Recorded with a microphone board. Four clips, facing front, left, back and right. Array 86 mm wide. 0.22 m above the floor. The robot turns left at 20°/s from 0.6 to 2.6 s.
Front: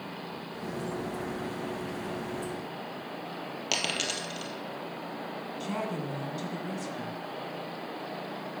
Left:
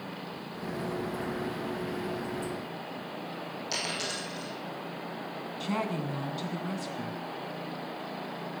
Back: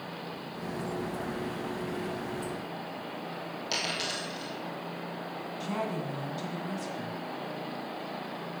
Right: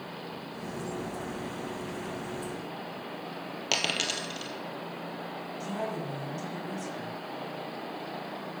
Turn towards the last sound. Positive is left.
turn(degrees=75)